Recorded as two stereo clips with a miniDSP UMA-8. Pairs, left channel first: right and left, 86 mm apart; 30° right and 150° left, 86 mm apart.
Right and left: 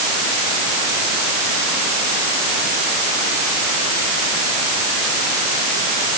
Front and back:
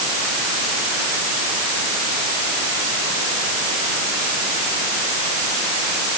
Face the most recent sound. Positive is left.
No sound to turn to.